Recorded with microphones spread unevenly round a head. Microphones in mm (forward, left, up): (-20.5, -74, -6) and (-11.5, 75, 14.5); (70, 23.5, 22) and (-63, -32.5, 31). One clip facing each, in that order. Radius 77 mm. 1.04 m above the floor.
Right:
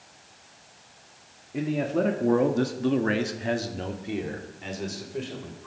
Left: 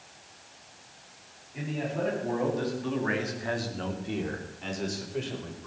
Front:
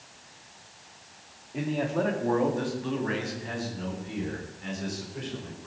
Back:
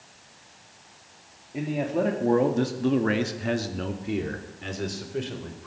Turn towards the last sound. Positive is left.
turn(degrees=175)